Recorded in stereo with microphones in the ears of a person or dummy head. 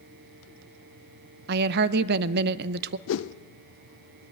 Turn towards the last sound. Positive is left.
turn(degrees=70)  # may be behind; listen again after turning